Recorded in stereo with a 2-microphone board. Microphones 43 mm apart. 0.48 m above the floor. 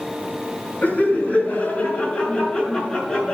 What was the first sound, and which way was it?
Laughter, 35° left (ahead or behind).